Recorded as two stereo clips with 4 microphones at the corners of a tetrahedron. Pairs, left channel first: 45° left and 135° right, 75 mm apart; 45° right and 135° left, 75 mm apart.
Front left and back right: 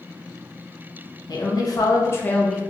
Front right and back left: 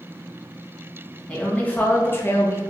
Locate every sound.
1.3 s a woman speaking: 30° left, 1.1 m; by 2.6 s 50° right, 0.5 m